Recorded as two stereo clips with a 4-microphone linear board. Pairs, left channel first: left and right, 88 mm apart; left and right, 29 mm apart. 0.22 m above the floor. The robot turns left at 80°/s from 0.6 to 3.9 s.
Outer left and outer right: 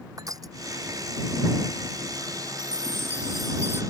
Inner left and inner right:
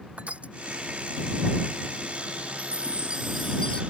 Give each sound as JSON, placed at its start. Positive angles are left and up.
{"t": 0.2, "sound": "crushing", "side_deg": -45}
{"t": 2.6, "sound": "a chime", "azimuth_deg": -115}